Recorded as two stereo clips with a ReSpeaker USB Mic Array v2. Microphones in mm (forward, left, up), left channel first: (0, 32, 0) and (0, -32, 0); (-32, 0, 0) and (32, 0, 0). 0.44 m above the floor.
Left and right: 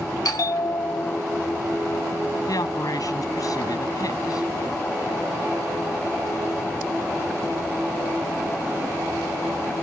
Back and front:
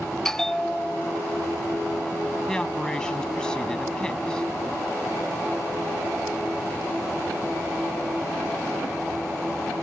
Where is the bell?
100° left.